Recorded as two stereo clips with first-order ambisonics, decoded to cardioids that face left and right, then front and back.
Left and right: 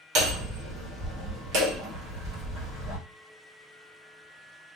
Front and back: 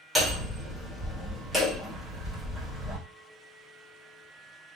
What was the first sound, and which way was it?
Hammering, 90° right.